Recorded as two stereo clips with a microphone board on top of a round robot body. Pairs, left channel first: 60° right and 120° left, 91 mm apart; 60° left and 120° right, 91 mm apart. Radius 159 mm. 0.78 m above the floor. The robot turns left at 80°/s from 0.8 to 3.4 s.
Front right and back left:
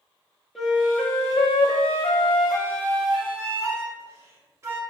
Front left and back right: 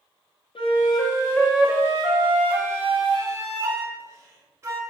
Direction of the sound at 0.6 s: 30° left.